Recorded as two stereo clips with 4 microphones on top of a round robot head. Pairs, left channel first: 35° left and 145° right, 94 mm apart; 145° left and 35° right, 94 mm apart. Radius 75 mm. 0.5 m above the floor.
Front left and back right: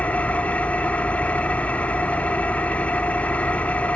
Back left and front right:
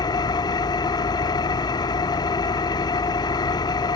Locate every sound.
0.0 s an engine running: 110° left, 0.8 m